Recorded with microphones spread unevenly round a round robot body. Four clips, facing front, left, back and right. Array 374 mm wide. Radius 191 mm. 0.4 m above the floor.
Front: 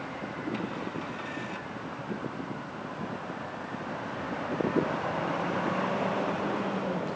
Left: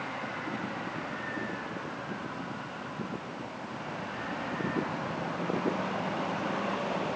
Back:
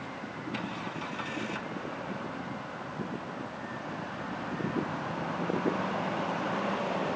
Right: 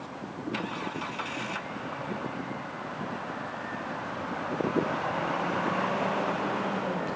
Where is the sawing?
No sawing in this recording.